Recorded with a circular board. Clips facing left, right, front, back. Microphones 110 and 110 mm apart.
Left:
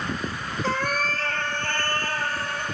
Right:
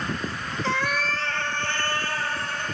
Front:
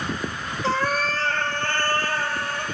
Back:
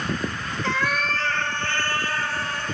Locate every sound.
0.6 s a cat meowing: 50° left, 0.8 m; by 2.6 s 45° left, 2 m